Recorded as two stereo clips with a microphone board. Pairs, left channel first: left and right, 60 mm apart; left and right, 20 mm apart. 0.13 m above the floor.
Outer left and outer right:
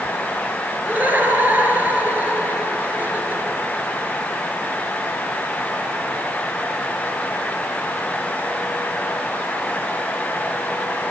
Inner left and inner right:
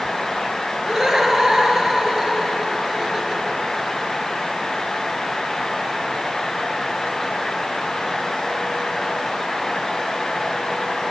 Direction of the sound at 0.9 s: 30° right (ahead or behind).